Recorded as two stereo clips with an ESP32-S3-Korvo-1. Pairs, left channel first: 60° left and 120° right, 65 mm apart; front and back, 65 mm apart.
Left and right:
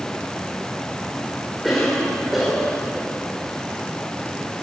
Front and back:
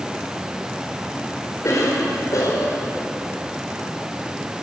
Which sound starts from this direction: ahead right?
A cough, at 1.6 s.